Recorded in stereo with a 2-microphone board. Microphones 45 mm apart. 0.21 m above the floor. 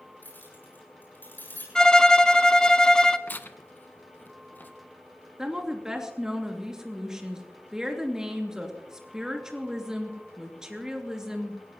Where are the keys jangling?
50° left (ahead or behind), 8 m.